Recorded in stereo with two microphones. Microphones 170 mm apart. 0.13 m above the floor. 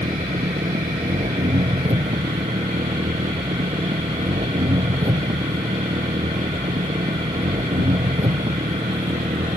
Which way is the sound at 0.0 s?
35° right (ahead or behind).